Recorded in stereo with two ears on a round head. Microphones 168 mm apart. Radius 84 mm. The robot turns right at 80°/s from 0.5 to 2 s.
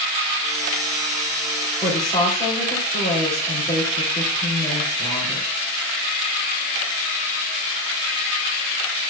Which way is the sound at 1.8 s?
15° left (ahead or behind).